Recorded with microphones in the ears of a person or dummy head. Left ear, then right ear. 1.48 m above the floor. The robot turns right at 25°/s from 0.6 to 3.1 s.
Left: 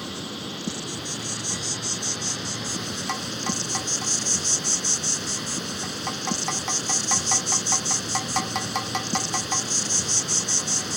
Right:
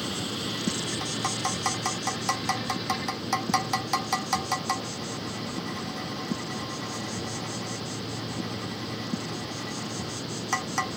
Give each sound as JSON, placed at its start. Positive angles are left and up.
{"t": 0.0, "sound": "an insect", "azimuth_deg": 5}